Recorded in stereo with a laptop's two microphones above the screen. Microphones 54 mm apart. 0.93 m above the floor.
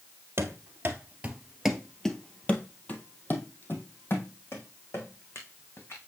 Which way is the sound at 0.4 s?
50° right (ahead or behind).